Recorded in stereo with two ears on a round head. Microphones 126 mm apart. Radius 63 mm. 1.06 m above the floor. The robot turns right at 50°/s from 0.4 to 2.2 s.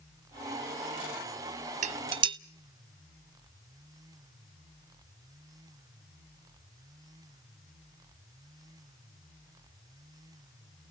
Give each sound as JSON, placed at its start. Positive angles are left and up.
{"t": 1.8, "sound": "dishes clattering", "side_deg": -50, "distance_m": 0.5}